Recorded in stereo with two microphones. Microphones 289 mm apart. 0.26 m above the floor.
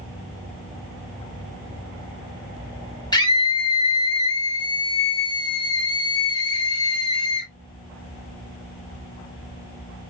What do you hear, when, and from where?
3.1 s a scream: 15° left (ahead or behind), 1.2 m